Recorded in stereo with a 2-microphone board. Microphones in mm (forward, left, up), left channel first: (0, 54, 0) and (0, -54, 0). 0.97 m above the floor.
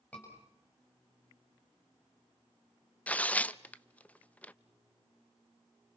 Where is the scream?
15° left (ahead or behind), 6.5 m.